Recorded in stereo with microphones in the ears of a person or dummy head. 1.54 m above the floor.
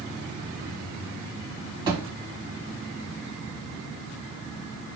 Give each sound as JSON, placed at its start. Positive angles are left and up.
{"t": 1.9, "sound": "a thud", "side_deg": -25, "distance_m": 2.5}